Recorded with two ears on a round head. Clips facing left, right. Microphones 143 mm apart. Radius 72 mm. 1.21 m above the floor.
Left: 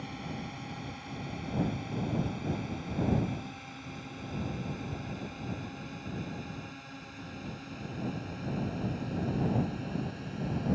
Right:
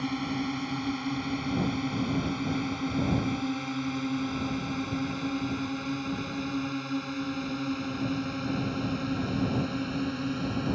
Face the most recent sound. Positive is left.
turn(degrees=-75)  # may be behind; listen again after turning